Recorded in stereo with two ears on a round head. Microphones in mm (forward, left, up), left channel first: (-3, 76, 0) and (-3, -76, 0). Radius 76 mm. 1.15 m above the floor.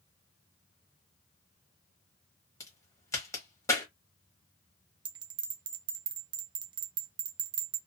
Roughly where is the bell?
Right.